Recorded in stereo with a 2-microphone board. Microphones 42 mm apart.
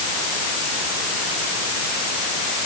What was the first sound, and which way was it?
Only background noise.